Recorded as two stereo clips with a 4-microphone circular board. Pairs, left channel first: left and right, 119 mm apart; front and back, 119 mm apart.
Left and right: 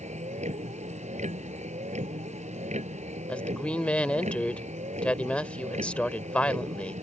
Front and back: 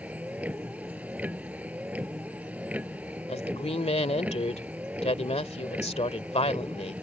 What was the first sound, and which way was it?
A vehicle, 105° right.